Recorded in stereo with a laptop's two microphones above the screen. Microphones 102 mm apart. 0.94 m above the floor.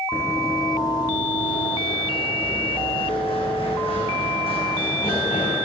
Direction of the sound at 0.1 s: 20° left (ahead or behind).